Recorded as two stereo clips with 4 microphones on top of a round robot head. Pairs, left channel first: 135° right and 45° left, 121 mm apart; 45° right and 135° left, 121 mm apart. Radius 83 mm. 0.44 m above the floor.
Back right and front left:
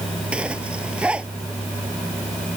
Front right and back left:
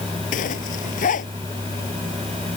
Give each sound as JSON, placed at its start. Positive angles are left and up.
{"t": 0.3, "sound": "a zipper", "azimuth_deg": -35}